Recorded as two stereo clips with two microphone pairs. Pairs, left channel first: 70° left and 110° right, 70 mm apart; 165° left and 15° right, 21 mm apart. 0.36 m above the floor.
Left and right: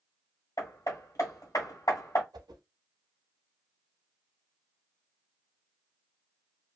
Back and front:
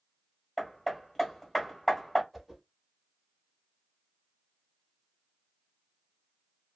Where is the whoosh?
105° right, 0.7 m.